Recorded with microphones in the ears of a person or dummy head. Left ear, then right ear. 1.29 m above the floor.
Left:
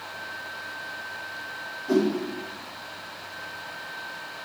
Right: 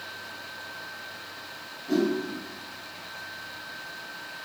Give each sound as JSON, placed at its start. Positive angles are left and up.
{"t": 1.9, "sound": "a whoosh", "side_deg": 50, "distance_m": 3.5}